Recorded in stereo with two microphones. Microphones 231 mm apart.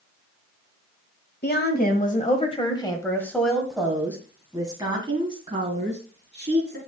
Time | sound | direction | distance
1.4 | a woman speaking | 45° left (ahead or behind) | 1.5 m